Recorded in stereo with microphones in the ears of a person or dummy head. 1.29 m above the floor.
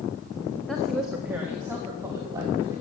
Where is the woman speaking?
Centre (ahead or behind), 1.4 m; by 2.8 s 25° right (ahead or behind), 3 m.